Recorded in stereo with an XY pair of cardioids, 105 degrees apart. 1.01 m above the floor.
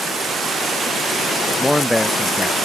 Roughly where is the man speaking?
Ahead.